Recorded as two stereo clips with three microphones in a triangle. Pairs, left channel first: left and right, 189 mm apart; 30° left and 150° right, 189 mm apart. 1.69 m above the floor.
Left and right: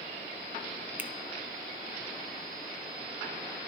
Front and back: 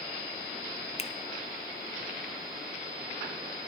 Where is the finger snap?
15° right, 0.7 m.